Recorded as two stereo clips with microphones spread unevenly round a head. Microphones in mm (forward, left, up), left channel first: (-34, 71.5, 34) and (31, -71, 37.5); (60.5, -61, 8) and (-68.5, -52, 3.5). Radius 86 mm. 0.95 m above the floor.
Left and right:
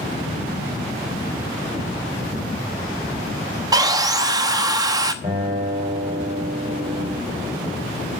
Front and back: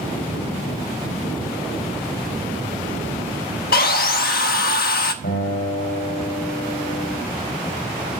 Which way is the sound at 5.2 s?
10° left.